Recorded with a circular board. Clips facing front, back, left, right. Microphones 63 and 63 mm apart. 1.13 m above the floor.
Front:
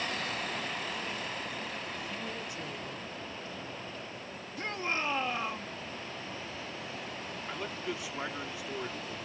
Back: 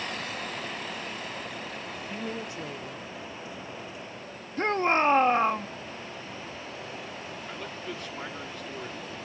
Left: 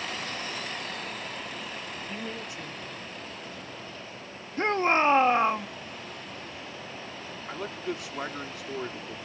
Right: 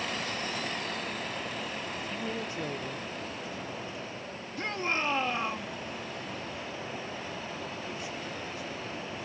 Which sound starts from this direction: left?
A man speaking, at 7.5 s.